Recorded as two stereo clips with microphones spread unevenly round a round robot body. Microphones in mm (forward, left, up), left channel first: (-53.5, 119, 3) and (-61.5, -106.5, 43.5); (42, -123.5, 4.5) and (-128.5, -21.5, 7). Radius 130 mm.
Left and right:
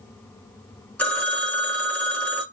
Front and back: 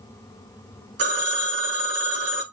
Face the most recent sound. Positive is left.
turn(degrees=165)